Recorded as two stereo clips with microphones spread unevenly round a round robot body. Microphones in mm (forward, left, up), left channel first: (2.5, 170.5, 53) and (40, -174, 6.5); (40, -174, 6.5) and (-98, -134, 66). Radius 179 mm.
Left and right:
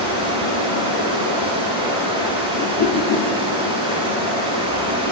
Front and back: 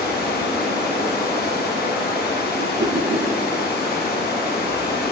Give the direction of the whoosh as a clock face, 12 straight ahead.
7 o'clock.